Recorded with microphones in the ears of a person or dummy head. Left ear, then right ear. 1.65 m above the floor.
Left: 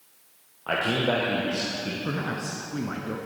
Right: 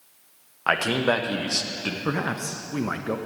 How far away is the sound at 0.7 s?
About 1.0 m.